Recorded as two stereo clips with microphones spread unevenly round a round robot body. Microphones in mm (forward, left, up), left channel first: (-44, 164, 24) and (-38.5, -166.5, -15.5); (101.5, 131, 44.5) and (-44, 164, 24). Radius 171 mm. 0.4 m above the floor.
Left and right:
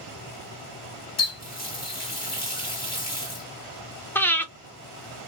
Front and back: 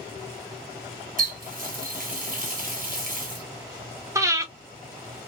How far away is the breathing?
About 0.6 m.